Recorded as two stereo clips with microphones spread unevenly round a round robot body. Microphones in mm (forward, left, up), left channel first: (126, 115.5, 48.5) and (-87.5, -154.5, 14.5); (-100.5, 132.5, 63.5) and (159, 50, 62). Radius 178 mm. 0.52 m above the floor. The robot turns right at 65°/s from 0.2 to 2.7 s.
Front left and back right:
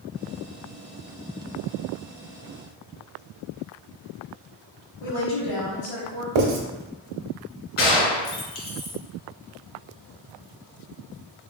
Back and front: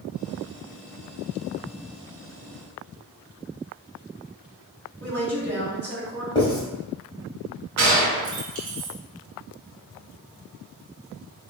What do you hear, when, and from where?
5.0 s a woman speaking: 35° left, 1.9 m
6.3 s writing: 120° right, 1.0 m
7.8 s a gunshot: straight ahead, 1.8 m